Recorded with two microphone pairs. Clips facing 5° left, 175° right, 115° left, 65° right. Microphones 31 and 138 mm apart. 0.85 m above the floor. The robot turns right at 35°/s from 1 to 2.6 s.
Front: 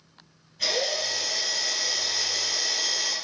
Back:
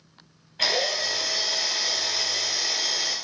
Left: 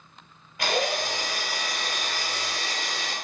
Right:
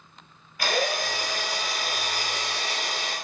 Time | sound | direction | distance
0.6 | a drill | straight behind | 2.5 m